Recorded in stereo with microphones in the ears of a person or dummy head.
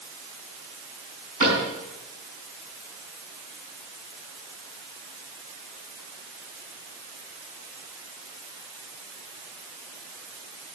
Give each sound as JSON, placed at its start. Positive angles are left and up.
{"t": 1.4, "sound": "a cupboard door", "side_deg": -50, "distance_m": 6.0}